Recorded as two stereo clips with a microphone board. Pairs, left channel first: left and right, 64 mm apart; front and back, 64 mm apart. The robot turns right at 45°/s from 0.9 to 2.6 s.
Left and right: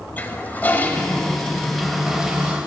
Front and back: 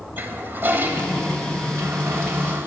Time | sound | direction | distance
0.2 | a toilet flushing | 140° left | 0.8 m